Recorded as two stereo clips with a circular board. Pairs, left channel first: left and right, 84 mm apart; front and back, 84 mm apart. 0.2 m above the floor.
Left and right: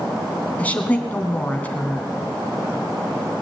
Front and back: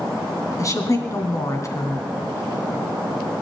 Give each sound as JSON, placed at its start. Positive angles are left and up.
{"t": 0.6, "sound": "a woman speaking", "azimuth_deg": 25, "distance_m": 2.0}